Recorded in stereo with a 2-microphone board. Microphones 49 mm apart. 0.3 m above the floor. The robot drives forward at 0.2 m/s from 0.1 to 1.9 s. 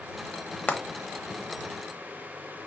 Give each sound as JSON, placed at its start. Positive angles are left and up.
{"t": 0.7, "sound": "frying", "side_deg": 35, "distance_m": 0.9}